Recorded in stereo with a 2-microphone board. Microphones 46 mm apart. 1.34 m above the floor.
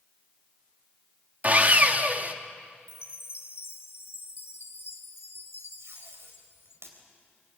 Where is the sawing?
35° right (ahead or behind), 1.3 m.